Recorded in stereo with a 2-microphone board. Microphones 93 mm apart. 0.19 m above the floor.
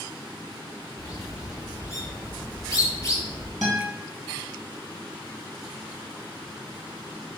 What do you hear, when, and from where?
1.0 s a bird: 35° left (ahead or behind), 0.8 m
3.6 s a guitar: centre (ahead or behind), 1.8 m